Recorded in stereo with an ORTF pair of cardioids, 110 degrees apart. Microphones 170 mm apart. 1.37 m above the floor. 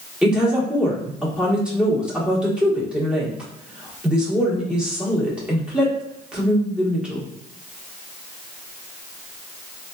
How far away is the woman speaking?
About 1.2 m.